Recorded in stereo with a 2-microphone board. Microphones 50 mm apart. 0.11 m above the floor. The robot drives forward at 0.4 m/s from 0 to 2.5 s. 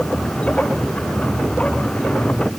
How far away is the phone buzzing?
I don't hear a phone buzzing.